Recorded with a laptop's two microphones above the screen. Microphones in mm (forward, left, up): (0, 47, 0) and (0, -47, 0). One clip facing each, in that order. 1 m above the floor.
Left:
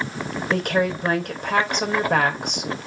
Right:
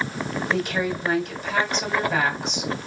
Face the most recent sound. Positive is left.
turn(degrees=60)  # may be behind; listen again after turning